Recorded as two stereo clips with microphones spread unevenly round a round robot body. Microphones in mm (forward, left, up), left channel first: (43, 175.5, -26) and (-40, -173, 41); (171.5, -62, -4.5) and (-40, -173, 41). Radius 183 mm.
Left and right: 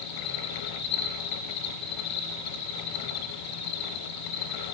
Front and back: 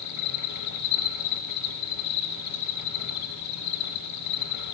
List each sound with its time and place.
0.0 s an insect: 30° left, 1.1 m